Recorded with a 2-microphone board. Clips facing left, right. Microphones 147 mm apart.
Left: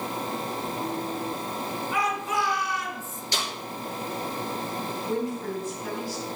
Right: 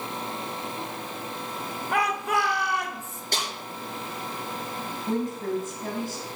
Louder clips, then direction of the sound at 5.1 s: Right 3 dB; 45° right (ahead or behind).